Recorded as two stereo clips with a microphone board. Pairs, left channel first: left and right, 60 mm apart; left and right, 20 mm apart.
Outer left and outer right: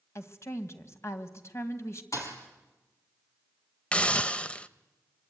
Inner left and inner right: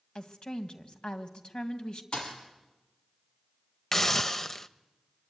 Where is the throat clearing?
No throat clearing in this recording.